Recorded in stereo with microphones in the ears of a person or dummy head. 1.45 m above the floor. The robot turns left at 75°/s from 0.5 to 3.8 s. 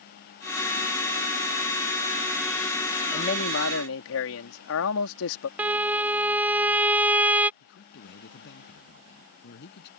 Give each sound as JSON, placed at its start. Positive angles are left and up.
{"t": 3.1, "sound": "a man speaking", "azimuth_deg": 145}
{"t": 5.6, "sound": "a violin", "side_deg": -10}
{"t": 7.6, "sound": "a man speaking", "side_deg": 60}